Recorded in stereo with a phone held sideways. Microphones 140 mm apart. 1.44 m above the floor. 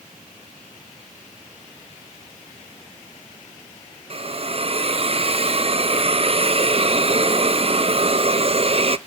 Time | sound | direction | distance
4.1 | a hiss | 45° right (ahead or behind) | 0.6 m